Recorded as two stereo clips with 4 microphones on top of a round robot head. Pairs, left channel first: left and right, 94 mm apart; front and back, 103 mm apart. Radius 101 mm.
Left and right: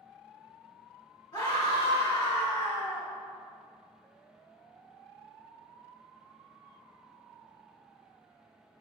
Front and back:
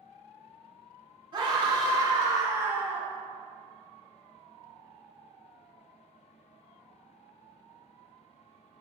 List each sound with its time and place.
1.3 s a scream: 140° left, 3.5 m; by 3.1 s 110° left, 2.5 m